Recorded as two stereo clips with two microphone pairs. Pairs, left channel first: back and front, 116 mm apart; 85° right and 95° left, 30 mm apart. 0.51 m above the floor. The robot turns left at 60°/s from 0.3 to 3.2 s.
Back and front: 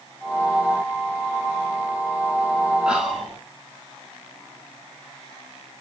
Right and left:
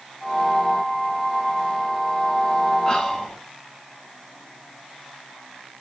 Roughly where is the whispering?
Ahead right.